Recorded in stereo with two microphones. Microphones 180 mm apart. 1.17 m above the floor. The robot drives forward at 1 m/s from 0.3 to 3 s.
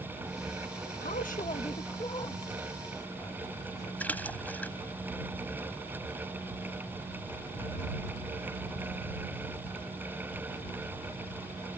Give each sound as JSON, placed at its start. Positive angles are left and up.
{"t": 1.0, "sound": "a man speaking", "side_deg": 60}
{"t": 4.0, "sound": "a splash", "side_deg": 10}